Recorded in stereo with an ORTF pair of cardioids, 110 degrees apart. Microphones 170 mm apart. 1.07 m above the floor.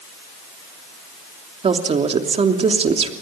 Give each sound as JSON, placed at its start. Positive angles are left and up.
{"t": 1.6, "sound": "a woman speaking", "azimuth_deg": -40, "distance_m": 3.0}